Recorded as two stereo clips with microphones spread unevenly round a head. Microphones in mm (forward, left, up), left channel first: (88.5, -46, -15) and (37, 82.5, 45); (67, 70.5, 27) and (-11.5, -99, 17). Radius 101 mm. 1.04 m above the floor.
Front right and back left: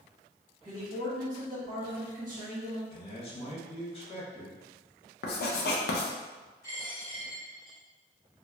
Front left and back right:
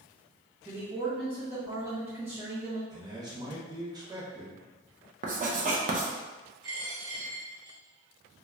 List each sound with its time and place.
0.7 s a man speaking: 170° left, 1.3 m
2.9 s a man speaking: 50° right, 1.3 m
5.2 s writing: 65° right, 0.6 m
6.6 s a dropped coin: 155° right, 1.5 m